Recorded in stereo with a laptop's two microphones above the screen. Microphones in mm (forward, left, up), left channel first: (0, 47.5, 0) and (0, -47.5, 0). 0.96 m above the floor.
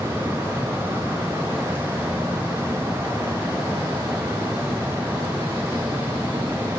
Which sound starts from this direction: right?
A fan, at 0.0 s.